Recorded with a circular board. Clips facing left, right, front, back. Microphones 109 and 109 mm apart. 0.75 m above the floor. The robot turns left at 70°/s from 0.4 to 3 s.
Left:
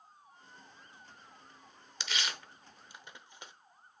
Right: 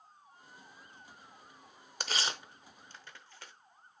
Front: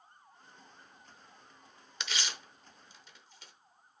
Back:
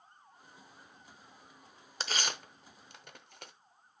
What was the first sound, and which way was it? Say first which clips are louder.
Tearing paper: right 2 dB, back 3 dB; 130° right.